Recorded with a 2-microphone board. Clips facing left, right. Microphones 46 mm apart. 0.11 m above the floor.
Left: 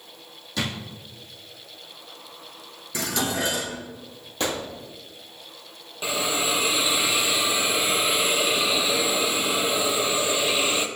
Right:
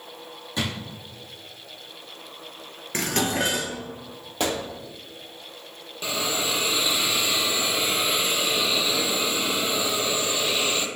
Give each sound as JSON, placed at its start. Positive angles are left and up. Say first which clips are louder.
{"t": 0.6, "sound": "a drawer", "louder": "even", "side_deg": -25, "distance_m": 3.0}
{"t": 2.9, "sound": "dishes clattering", "louder": "right 2 dB", "side_deg": -50, "distance_m": 1.2}
{"t": 4.4, "sound": "a gunshot", "louder": "right 1 dB", "side_deg": -20, "distance_m": 2.5}
{"t": 6.0, "sound": "a hiss", "louder": "left 2 dB", "side_deg": 15, "distance_m": 0.7}